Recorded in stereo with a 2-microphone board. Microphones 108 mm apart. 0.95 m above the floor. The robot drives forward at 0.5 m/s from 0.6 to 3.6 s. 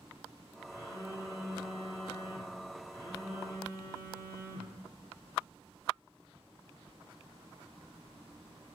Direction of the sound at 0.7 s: 25° left (ahead or behind).